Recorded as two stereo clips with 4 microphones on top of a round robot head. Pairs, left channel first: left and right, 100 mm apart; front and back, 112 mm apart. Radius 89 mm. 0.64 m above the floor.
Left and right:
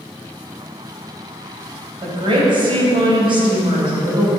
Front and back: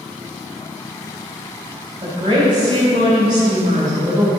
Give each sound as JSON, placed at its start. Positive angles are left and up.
{"t": 2.0, "sound": "a woman speaking", "azimuth_deg": -125, "distance_m": 3.5}